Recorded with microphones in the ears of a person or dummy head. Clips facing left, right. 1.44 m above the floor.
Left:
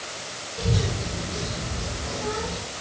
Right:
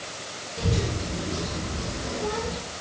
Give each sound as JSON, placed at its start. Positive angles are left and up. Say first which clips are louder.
{"t": 0.6, "sound": "a child speaking", "louder": "even", "side_deg": -70, "distance_m": 2.5}